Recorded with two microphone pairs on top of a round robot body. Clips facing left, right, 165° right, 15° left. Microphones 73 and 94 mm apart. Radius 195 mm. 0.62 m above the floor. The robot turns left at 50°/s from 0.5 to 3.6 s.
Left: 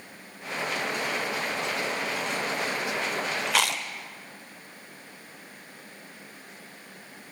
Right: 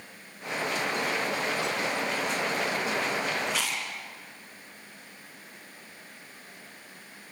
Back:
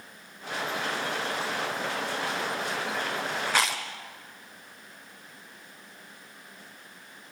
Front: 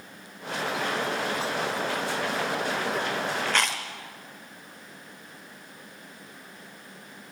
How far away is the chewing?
About 1.1 m.